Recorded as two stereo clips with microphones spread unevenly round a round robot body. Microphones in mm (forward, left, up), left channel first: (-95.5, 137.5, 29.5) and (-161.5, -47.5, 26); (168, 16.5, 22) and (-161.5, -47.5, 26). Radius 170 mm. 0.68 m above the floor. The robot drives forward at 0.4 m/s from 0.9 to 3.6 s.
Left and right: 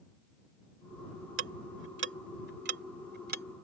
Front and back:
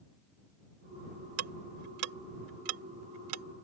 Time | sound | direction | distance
1.4 | ticking | 120° right | ?